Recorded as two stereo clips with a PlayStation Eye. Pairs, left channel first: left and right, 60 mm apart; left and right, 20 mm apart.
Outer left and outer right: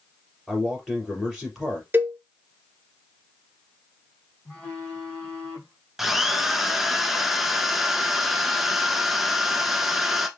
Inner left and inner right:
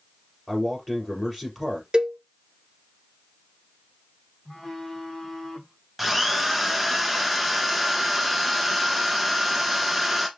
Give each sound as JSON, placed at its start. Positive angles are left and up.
{"t": 0.5, "sound": "a man speaking", "side_deg": 0, "distance_m": 3.0}
{"t": 1.9, "sound": "a cowbell", "side_deg": -35, "distance_m": 0.6}
{"t": 4.5, "sound": "a phone buzzing", "side_deg": 10, "distance_m": 2.5}
{"t": 6.0, "sound": "a drill", "side_deg": -5, "distance_m": 0.7}